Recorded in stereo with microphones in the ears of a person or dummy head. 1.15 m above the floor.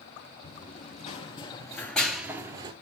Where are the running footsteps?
45° left (ahead or behind), 2 m; by 2.7 s 30° right (ahead or behind), 1.4 m.